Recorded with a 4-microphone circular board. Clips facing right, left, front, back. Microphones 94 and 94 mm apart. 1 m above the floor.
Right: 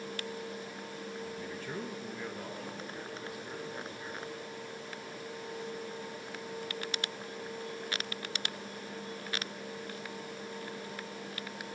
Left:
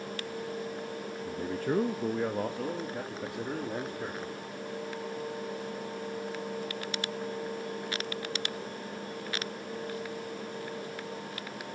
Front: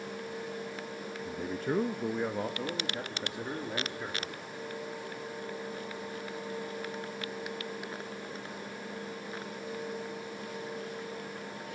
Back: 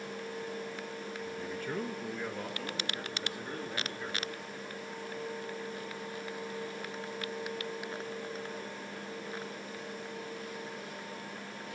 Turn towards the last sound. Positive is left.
turn(degrees=70)